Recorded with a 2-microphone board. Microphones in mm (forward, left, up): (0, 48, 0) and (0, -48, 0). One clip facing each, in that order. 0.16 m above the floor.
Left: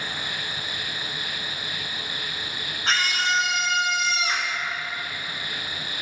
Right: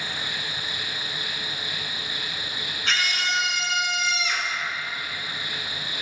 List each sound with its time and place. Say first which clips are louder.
0.0 s an insect: even; 50° left (ahead or behind), 3 m
2.9 s a scream: left 3 dB; 35° left (ahead or behind), 1.8 m